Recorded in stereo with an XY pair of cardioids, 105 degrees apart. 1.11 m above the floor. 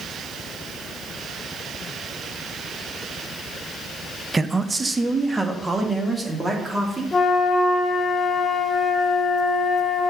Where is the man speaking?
20° right, 0.6 m; by 7.0 s 15° right, 2.5 m.